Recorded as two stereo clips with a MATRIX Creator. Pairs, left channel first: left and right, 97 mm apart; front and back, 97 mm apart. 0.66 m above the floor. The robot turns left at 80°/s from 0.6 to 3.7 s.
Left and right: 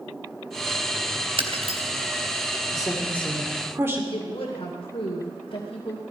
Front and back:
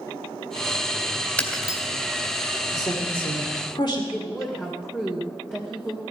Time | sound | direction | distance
1.4 | breaking glass | 75° right | 2.5 m
2.7 | a woman speaking | 50° left | 2 m
4.1 | a woman speaking | 75° left | 2.5 m